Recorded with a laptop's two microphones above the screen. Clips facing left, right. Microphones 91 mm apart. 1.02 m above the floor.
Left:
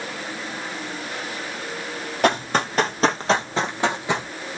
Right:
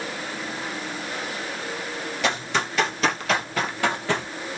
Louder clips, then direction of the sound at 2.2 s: Left 6 dB; 50° left (ahead or behind).